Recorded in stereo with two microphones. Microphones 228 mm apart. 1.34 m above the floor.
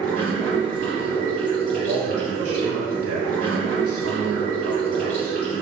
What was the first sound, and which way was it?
Running water, 35° left (ahead or behind).